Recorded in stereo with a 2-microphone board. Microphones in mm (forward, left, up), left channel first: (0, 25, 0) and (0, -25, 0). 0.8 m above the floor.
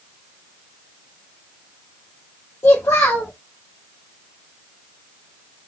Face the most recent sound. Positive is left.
turn(degrees=80)